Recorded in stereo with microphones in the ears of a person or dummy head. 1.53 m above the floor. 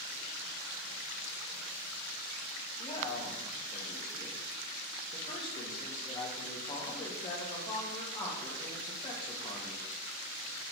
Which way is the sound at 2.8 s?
30° left (ahead or behind).